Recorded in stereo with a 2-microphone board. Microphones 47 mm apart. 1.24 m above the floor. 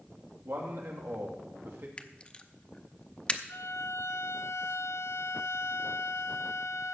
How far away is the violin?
About 1.6 m.